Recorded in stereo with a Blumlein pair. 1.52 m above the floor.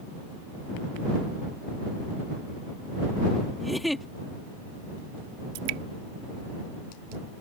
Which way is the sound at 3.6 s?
Straight ahead.